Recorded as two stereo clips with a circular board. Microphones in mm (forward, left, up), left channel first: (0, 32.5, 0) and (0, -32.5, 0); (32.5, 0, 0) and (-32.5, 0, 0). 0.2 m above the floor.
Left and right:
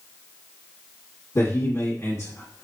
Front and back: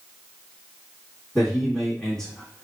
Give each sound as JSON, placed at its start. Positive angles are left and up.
{"t": 1.4, "sound": "a man speaking", "azimuth_deg": 75, "distance_m": 1.7}